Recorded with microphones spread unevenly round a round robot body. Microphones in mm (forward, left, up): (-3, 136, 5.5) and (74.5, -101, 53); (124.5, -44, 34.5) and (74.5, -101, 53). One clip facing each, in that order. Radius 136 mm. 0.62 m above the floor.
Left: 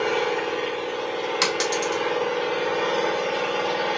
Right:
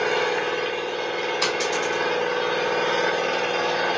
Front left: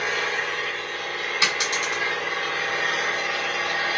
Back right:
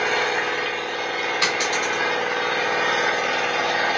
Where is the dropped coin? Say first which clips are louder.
Left 1 dB, back right 1 dB; 125° left, 1.0 m.